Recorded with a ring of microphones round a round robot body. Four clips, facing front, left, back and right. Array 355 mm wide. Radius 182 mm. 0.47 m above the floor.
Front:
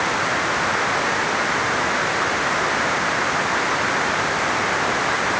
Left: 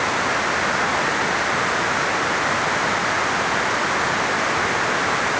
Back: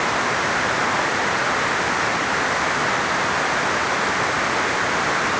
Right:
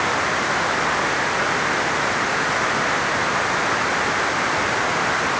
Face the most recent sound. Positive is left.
No sound to turn to.